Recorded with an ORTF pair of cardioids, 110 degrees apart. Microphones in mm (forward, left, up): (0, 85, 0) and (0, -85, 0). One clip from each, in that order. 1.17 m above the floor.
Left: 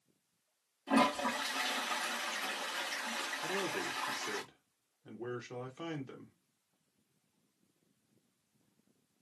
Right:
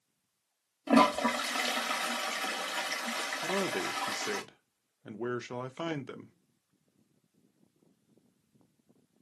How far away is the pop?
No pop in this recording.